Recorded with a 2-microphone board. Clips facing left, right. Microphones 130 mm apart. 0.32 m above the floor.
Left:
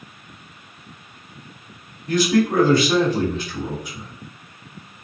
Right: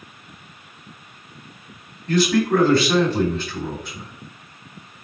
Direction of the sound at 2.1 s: 15° left (ahead or behind).